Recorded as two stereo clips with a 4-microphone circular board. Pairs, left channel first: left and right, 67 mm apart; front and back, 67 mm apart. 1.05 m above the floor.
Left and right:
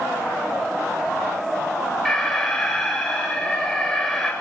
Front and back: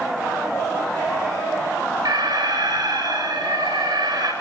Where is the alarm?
175° left, 7 m.